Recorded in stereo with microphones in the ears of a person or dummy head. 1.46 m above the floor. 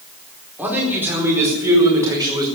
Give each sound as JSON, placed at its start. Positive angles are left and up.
{"t": 0.6, "sound": "a man speaking", "side_deg": -15, "distance_m": 4.0}